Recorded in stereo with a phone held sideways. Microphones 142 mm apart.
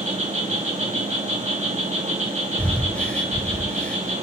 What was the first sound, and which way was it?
An insect, 55° right (ahead or behind).